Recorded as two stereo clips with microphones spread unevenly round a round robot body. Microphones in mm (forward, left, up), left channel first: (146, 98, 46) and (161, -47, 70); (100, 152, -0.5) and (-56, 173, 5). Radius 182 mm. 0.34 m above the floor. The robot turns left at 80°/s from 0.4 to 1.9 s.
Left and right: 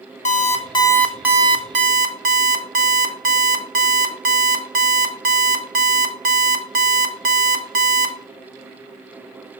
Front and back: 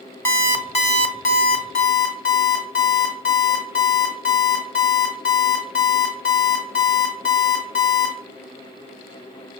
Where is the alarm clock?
70° left, 0.8 m; by 8.2 s 50° right, 0.8 m.